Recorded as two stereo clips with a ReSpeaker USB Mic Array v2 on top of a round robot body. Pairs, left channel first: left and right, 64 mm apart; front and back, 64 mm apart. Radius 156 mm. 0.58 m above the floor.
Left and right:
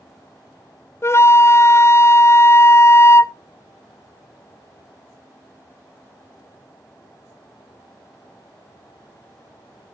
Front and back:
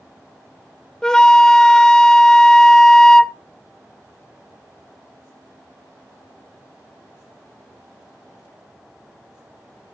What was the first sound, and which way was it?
A flute, 75° left.